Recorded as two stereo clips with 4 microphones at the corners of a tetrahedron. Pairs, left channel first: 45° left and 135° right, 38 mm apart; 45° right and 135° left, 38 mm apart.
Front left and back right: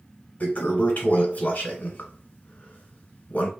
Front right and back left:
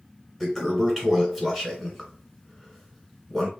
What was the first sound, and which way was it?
A toilet flushing, 50° left.